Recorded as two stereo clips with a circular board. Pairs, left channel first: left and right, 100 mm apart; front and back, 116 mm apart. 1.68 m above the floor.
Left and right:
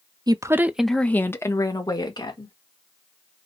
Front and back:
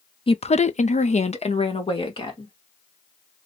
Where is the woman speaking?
40° right, 0.5 m; by 2.5 s 45° left, 1.3 m.